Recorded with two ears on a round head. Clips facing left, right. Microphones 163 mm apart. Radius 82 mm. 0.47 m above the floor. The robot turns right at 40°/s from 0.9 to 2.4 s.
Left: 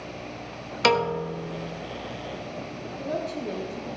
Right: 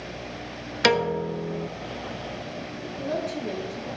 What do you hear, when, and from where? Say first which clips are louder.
0.8 s a piano: right 1 dB; 170° right, 0.8 m; by 1.7 s 135° right, 0.8 m
3.0 s a woman speaking: right 1 dB; centre (ahead or behind), 6.5 m